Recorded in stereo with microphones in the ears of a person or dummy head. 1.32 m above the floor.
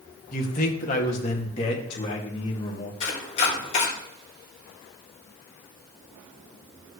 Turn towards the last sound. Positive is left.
turn(degrees=35)  # may be behind; listen again after turning